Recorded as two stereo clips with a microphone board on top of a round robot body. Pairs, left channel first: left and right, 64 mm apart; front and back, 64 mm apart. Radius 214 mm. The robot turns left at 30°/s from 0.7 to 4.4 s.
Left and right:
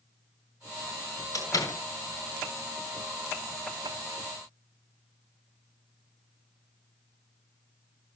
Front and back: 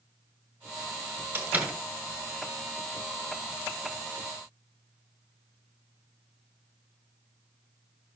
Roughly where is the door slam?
Behind left.